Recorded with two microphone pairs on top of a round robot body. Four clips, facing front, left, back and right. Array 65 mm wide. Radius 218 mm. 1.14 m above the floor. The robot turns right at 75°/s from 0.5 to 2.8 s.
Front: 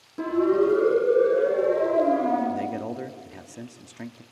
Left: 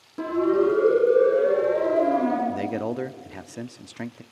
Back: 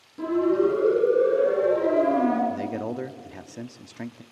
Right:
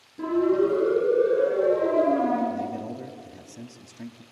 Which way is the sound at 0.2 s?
60° left.